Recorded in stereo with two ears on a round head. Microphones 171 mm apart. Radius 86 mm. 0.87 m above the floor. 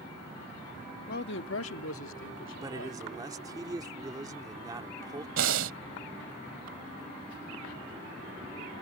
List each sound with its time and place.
1.1 s a man speaking: 50° left (ahead or behind); by 3.0 s 65° left (ahead or behind)
2.6 s a man speaking: 20° right (ahead or behind)
5.4 s breathing: 70° right (ahead or behind)